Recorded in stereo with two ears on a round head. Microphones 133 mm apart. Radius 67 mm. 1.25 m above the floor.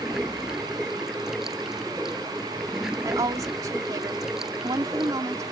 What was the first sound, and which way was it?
Running water, 5° right (ahead or behind).